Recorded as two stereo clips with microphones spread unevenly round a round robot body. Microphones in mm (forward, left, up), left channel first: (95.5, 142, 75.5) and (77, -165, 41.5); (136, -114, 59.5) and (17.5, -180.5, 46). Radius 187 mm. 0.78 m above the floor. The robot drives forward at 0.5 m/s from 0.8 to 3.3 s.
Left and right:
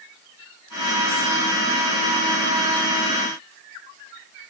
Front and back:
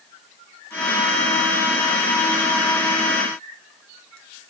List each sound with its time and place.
Only background noise.